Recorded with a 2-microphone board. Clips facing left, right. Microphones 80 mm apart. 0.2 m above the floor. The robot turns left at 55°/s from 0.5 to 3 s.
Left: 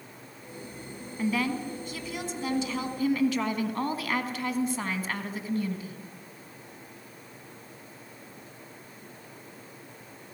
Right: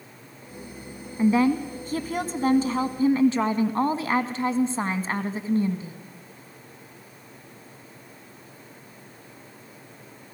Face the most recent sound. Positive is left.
turn(degrees=-135)